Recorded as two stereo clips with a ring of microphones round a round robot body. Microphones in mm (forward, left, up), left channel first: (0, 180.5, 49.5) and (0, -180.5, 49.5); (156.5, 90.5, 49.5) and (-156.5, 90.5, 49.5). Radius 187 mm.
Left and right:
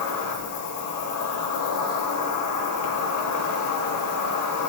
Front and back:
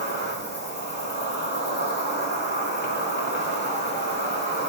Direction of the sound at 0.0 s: 55° left.